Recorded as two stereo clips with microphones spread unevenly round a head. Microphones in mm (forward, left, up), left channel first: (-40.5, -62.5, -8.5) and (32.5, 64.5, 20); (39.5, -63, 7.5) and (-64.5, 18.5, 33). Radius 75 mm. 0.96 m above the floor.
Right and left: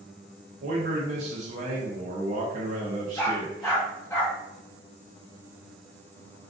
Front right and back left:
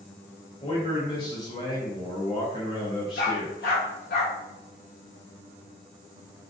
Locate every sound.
0.6 s a man speaking: 15° left, 0.6 m
3.2 s a dog barking: 45° right, 1.1 m